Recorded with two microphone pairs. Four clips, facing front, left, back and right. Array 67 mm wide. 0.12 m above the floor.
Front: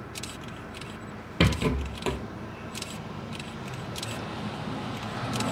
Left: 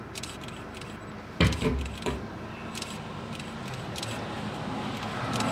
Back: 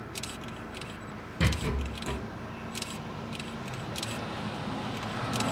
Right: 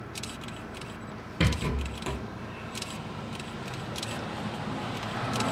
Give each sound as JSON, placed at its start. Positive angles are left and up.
{"t": 1.4, "sound": "a rattle", "azimuth_deg": 20, "distance_m": 1.5}